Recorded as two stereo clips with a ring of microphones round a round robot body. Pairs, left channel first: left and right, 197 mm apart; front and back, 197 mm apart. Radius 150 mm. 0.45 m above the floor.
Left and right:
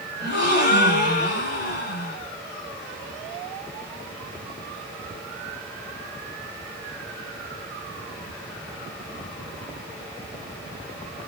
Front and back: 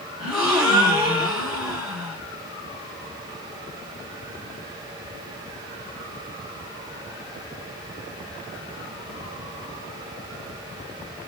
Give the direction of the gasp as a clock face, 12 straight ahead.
9 o'clock.